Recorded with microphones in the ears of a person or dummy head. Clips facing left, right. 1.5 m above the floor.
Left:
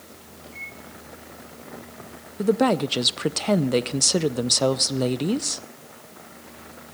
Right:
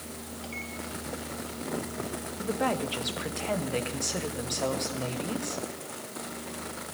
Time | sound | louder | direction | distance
0.4 | a microwave | right 3 dB | 80° right | 3.5 m
2.4 | a woman speaking | left 10 dB | 60° left (ahead or behind) | 0.6 m